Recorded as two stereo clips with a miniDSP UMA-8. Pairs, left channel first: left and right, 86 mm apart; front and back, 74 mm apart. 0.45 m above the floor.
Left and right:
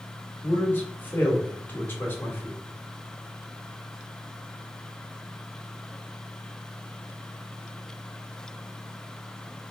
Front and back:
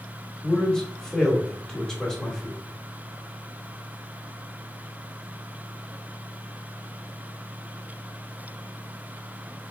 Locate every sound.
0.4 s a man speaking: 70° left, 1.2 m